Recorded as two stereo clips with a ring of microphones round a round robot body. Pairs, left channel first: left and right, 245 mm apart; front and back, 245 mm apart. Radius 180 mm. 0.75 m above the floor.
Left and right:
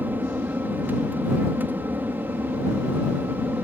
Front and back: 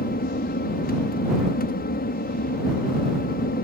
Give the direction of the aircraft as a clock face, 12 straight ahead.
12 o'clock.